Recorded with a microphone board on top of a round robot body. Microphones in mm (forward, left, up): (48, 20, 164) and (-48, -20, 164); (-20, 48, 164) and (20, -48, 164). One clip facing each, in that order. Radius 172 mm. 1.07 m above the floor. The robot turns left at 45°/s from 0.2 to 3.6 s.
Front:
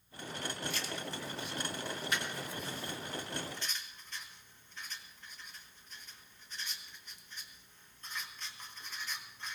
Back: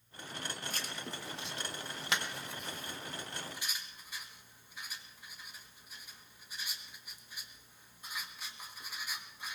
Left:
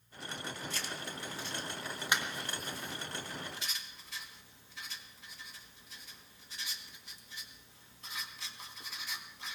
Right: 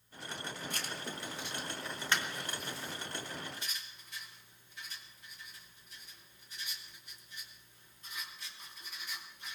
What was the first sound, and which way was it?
Writing, 105° right.